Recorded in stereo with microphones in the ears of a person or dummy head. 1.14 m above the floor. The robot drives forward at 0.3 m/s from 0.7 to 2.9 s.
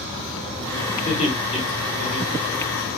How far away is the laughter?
About 1.3 m.